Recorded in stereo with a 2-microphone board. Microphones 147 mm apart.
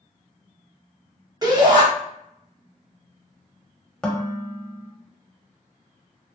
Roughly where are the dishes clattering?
Centre.